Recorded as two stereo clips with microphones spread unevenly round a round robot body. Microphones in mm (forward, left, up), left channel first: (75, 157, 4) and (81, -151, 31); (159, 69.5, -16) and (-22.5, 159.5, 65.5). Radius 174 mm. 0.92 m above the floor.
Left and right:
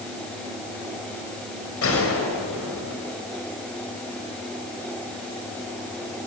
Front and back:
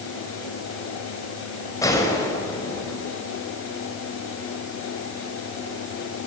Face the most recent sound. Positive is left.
turn(degrees=45)